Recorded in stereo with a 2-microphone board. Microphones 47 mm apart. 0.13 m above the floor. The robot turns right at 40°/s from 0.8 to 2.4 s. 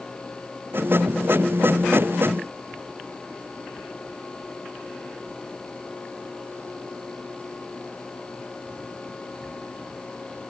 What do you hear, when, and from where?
Only background noise.